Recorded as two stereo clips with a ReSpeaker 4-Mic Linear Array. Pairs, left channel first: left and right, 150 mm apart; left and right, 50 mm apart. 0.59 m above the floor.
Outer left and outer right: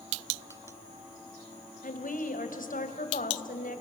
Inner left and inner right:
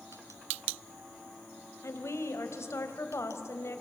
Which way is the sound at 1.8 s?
75° left (ahead or behind).